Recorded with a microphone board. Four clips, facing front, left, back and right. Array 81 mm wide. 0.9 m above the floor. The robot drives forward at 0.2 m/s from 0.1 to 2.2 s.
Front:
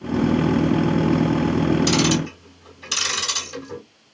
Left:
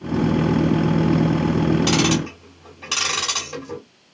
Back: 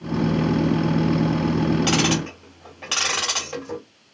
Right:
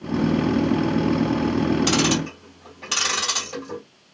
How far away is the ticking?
About 1.8 m.